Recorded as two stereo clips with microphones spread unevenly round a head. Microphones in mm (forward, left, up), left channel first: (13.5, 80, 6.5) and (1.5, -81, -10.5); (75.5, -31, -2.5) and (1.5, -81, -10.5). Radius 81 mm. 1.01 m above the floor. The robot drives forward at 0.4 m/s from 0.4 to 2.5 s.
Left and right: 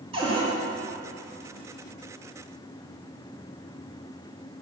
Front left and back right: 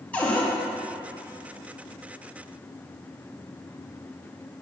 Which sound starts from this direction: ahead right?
A cupboard door, at 0.1 s.